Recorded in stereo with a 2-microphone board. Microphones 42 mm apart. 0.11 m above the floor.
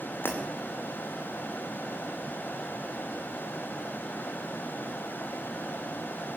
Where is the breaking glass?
70° left (ahead or behind), 4 m.